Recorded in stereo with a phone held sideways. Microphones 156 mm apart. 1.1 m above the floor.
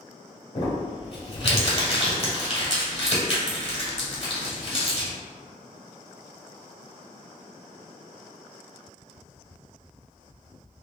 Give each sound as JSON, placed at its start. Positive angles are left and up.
{"t": 0.6, "sound": "crumpling", "side_deg": 40, "distance_m": 1.4}